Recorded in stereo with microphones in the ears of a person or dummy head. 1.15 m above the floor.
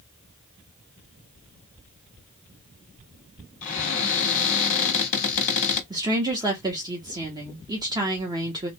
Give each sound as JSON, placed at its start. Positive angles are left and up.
{"t": 3.6, "sound": "a cupboard door", "side_deg": 35, "distance_m": 1.6}
{"t": 5.9, "sound": "a woman speaking", "side_deg": -15, "distance_m": 0.8}